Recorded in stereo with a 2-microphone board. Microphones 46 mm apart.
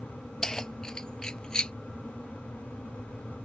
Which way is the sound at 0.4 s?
10° left (ahead or behind).